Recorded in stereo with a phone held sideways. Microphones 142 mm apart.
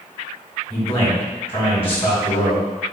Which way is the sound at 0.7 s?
40° left (ahead or behind).